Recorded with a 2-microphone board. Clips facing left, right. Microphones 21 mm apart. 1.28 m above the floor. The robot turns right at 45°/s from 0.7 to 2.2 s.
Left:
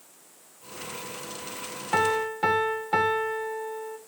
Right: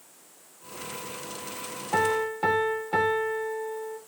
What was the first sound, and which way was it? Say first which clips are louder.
A piano: left 1 dB; 35° left (ahead or behind).